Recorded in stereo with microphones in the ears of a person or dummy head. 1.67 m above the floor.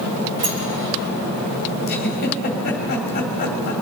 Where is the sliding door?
50° right (ahead or behind), 2.5 m.